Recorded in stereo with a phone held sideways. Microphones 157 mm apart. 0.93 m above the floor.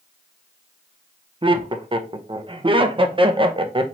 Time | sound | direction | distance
1.4 | laughter | 35° right (ahead or behind) | 0.5 m